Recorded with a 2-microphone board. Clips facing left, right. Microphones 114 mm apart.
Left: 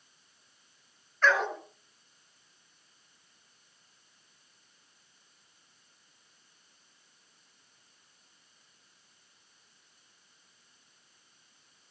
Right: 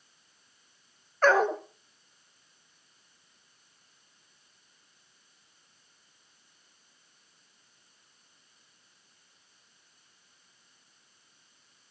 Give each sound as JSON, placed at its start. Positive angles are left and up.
{"t": 1.2, "sound": "a dog barking", "side_deg": -45, "distance_m": 0.9}